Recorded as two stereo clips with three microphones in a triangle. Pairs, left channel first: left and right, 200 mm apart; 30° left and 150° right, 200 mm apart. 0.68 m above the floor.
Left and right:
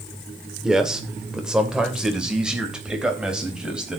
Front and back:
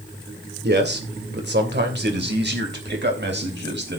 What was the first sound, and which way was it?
A man speaking, straight behind.